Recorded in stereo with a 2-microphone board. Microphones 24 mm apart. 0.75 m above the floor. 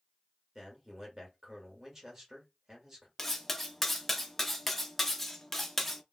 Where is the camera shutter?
No camera shutter in this recording.